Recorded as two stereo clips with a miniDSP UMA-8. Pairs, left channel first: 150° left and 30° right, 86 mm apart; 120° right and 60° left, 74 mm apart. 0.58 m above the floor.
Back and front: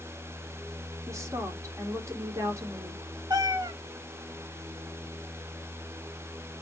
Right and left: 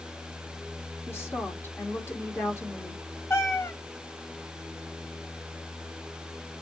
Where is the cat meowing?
65° right, 0.7 m.